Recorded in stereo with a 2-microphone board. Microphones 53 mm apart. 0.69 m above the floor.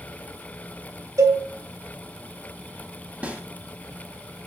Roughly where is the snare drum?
Right.